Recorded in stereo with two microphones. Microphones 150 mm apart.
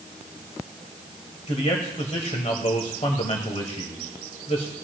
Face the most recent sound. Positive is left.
turn(degrees=45)  # may be behind; listen again after turning